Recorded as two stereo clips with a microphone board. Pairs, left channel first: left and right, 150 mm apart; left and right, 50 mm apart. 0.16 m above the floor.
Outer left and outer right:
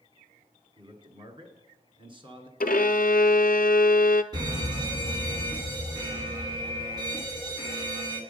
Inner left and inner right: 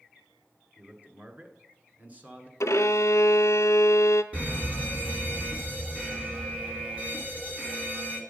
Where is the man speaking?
35° right (ahead or behind), 1.5 m.